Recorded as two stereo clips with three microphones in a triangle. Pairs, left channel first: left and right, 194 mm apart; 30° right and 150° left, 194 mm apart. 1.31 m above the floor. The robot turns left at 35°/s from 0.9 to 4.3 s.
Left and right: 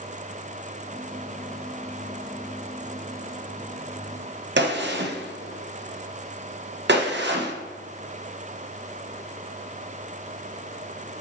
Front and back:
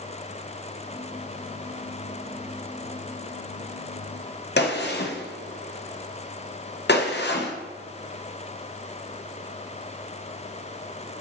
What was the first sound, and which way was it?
A gunshot, 60° right.